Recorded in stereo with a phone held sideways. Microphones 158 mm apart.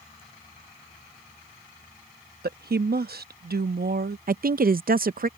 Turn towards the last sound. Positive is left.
turn(degrees=-65)  # may be behind; listen again after turning